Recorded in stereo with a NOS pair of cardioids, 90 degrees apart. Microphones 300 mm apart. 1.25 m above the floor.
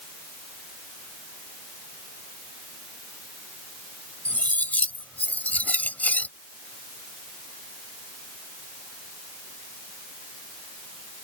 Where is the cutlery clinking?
5° left.